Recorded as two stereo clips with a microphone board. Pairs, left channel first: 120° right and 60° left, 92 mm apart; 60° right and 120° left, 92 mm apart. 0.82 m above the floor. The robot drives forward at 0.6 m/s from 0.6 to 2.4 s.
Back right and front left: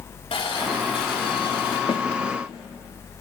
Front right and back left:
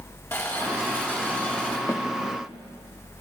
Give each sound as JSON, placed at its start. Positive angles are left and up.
{"t": 0.3, "sound": "boiling", "azimuth_deg": -120, "distance_m": 2.5}
{"t": 1.9, "sound": "a snare drum", "azimuth_deg": -115, "distance_m": 1.1}